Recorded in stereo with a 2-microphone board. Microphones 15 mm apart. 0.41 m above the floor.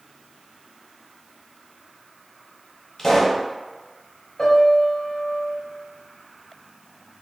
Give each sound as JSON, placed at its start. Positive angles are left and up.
{"t": 3.0, "sound": "a pop", "side_deg": 40, "distance_m": 1.0}
{"t": 4.4, "sound": "a piano", "side_deg": 45, "distance_m": 1.0}